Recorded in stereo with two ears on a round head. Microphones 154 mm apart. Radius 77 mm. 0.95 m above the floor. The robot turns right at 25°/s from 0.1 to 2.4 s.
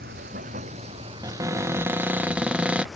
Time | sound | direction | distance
0.0 | running water | 55° right | ?
1.2 | a cupboard door | 20° right (ahead or behind) | ?